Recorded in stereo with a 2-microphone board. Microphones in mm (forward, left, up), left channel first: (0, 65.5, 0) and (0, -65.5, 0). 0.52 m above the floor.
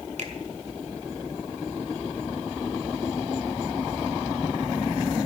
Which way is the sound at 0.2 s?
60° right (ahead or behind).